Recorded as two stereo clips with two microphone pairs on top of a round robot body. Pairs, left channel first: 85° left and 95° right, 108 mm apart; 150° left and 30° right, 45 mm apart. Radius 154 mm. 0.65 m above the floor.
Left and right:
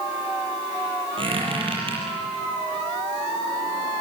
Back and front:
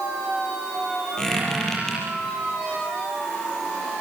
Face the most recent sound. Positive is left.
turn(degrees=-135)